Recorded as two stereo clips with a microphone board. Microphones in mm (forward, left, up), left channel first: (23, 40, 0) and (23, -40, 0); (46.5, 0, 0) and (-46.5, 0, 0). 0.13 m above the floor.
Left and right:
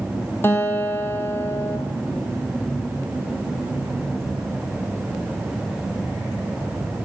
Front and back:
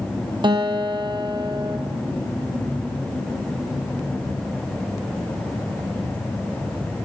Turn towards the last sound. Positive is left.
turn(degrees=150)